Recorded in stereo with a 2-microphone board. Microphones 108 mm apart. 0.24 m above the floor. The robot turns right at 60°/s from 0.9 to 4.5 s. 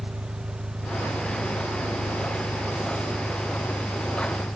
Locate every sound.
0.0 s an engine running: 140° right; by 4.6 s 80° left